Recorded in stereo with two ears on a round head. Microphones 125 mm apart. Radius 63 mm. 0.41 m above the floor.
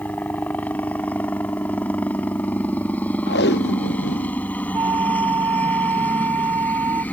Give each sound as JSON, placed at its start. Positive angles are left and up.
{"t": 0.0, "sound": "a helicopter", "side_deg": 10}
{"t": 3.3, "sound": "tape being pulled", "side_deg": 85}
{"t": 4.7, "sound": "a flute", "side_deg": -20}